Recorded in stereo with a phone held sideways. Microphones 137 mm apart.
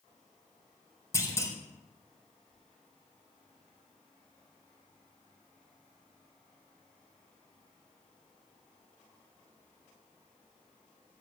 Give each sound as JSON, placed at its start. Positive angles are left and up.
{"t": 1.1, "sound": "a clunk", "side_deg": 20, "distance_m": 4.0}